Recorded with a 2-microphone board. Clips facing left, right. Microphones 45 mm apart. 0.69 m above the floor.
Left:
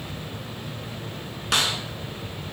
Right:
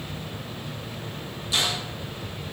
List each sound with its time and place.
1.5 s a snare drum: 75° left (ahead or behind), 4.5 m